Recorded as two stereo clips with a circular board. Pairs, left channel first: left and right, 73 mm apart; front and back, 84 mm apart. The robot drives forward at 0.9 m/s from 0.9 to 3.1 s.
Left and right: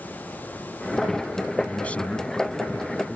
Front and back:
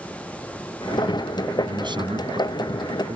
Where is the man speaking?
160° left; by 3.2 s 165° left.